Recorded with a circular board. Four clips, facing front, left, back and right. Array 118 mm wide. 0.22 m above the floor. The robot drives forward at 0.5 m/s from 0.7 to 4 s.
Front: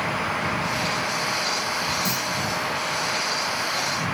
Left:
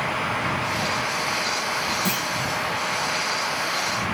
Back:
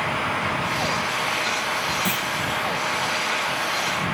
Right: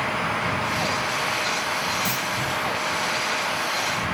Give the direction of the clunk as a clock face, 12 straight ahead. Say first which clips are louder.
Left 1 dB, back 2 dB; 7 o'clock.